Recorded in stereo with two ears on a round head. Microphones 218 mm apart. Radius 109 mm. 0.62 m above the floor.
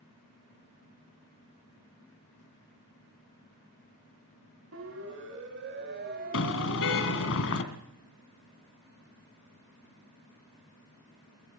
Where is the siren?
60° right (ahead or behind), 4.5 m; by 7.3 s 15° right (ahead or behind), 3 m.